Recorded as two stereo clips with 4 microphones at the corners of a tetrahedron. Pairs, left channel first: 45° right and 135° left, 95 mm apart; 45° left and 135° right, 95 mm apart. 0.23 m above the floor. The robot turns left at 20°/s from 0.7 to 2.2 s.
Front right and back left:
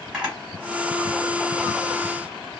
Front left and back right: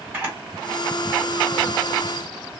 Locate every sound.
0.1 s a camera shutter: 160° right, 1.7 m; by 2.5 s 170° left, 1.7 m